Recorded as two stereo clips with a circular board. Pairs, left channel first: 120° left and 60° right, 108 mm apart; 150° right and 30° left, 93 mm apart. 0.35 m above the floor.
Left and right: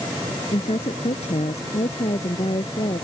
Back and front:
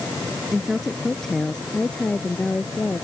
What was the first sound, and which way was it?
A woman speaking, 120° left.